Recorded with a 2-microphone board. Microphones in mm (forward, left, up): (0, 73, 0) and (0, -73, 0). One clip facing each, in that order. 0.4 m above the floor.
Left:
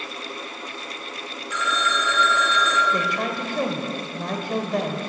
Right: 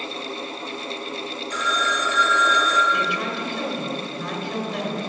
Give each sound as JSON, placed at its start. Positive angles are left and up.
{"t": 1.5, "sound": "a phone ringing", "side_deg": -40, "distance_m": 2.5}
{"t": 2.9, "sound": "a woman speaking", "side_deg": 45, "distance_m": 1.8}